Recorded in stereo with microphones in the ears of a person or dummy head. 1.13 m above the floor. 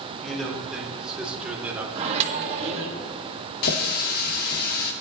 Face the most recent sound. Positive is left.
turn(degrees=55)  # may be behind; listen again after turning